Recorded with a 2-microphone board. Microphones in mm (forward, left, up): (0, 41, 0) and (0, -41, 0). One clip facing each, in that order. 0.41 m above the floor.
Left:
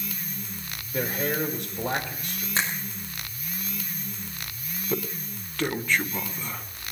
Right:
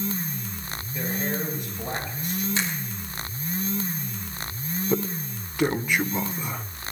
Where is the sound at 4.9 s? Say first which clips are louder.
Right 3 dB; 15° right (ahead or behind), 1.1 m.